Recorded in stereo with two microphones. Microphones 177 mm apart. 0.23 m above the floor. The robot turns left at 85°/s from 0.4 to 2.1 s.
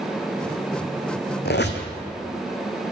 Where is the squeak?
110° left, 1.1 m; by 1.9 s 75° left, 1.1 m.